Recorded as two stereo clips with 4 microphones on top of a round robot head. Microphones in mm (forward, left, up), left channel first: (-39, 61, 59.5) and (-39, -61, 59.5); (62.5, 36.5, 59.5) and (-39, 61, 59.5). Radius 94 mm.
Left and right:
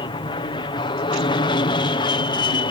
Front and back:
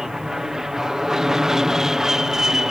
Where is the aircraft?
85° left.